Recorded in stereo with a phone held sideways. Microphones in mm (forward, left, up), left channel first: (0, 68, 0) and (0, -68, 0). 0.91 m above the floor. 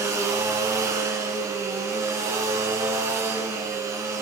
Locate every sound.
0.0 s a machine running: 20° right (ahead or behind), 2.0 m